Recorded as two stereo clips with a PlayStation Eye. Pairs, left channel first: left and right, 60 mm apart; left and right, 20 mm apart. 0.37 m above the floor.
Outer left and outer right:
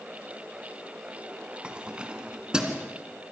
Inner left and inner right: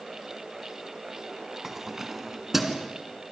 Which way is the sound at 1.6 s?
15° right (ahead or behind).